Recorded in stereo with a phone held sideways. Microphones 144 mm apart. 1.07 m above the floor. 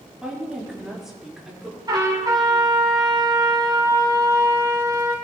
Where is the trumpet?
30° right (ahead or behind), 2.5 m.